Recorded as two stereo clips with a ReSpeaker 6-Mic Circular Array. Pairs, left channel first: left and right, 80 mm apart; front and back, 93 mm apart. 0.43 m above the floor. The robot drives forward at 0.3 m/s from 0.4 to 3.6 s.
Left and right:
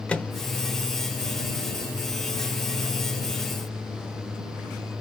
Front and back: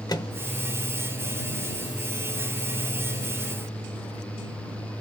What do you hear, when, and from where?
0.1 s a microwave: 20° left, 0.9 m